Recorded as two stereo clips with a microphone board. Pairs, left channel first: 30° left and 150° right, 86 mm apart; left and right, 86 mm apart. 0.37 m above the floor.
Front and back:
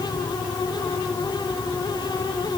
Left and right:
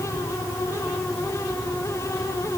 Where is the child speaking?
No child speaking in this recording.